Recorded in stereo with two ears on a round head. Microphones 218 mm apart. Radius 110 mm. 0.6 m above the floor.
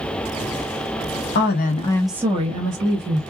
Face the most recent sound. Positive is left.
turn(degrees=-45)  # may be behind; listen again after turning